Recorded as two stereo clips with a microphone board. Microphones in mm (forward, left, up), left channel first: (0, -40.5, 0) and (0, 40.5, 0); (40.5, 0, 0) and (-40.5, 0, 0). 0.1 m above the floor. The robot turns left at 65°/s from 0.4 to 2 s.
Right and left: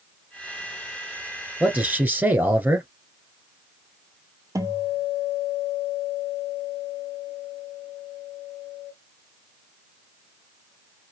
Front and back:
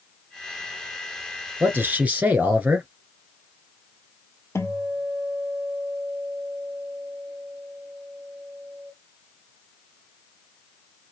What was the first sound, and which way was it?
A man speaking, 155° left.